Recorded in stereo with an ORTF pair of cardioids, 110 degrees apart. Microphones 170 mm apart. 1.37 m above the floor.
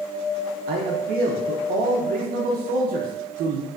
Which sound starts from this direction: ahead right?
A man speaking, at 0.7 s.